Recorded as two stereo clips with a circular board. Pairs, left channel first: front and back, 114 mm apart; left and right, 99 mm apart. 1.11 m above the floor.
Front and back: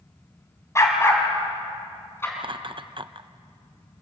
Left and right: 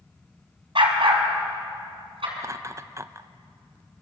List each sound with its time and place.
0.8 s a dog barking: 65° right, 4 m; by 2.3 s 70° right, 5.5 m
2.4 s laughter: 145° right, 0.7 m